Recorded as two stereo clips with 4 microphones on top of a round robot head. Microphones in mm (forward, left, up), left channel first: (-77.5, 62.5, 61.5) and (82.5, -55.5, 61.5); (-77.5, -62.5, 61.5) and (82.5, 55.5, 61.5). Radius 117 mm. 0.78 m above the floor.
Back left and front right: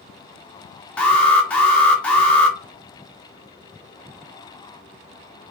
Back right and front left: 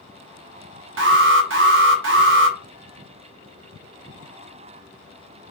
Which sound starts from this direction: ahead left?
An alarm, at 1.0 s.